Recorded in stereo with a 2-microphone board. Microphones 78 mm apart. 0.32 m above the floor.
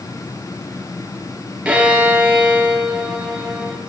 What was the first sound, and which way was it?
A violin, 15° right (ahead or behind).